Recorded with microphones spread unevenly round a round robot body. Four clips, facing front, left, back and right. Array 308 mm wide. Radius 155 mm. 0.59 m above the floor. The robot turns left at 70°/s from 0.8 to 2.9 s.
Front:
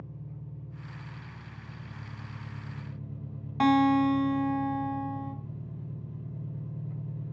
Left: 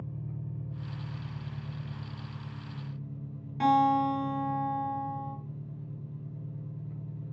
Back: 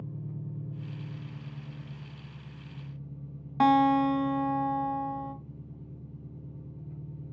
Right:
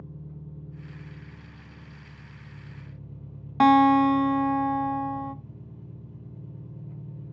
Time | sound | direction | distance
0.0 | an engine running | 140° left | 1.4 m
3.6 | a guitar | 85° right | 0.5 m